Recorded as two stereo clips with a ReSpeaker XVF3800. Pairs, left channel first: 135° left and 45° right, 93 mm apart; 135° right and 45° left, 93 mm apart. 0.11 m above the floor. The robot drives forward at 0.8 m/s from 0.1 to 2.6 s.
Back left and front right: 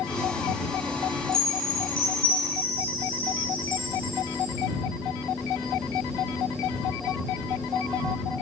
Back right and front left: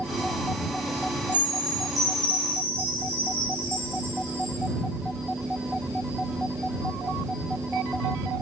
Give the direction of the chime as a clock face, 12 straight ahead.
9 o'clock.